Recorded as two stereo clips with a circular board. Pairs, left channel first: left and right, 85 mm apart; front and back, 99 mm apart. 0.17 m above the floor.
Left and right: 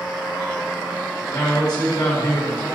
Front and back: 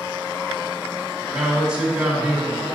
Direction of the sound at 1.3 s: 100° left.